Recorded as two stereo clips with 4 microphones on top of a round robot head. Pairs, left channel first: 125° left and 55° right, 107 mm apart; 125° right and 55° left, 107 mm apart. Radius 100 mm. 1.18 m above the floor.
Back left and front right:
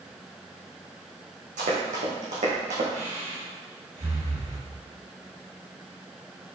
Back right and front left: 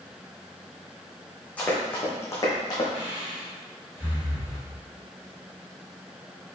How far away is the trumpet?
I don't hear a trumpet.